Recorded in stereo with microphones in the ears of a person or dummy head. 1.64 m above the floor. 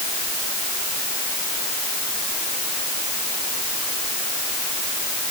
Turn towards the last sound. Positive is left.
No sound to turn to.